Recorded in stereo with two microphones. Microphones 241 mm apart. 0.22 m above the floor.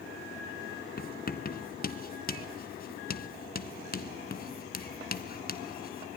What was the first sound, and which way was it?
Writing, 40° left (ahead or behind).